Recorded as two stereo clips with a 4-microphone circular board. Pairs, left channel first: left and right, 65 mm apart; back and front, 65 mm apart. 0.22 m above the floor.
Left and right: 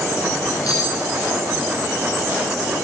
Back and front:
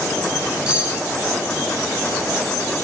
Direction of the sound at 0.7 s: 75° left.